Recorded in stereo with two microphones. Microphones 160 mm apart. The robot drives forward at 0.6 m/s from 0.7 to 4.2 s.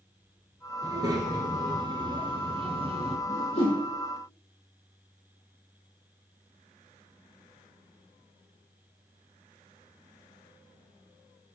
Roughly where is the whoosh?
Left.